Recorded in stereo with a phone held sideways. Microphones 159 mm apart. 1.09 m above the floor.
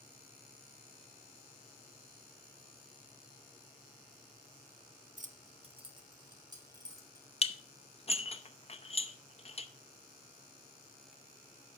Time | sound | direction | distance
5.2 | keys jangling | 55° right (ahead or behind) | 0.6 m
7.4 | dishes clattering | 40° left (ahead or behind) | 0.6 m